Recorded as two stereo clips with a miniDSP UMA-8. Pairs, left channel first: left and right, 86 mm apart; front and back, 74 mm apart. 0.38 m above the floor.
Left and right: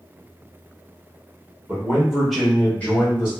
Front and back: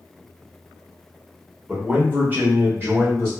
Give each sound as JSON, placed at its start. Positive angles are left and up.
{"t": 1.7, "sound": "a man speaking", "azimuth_deg": -130, "distance_m": 1.0}